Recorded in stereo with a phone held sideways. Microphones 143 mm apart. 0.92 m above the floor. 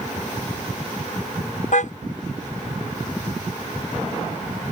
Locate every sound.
1.7 s a car horn: 70° left (ahead or behind)